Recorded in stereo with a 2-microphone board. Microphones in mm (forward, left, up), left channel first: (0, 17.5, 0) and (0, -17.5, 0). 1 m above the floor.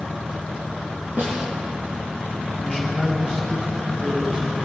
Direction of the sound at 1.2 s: 50° right (ahead or behind).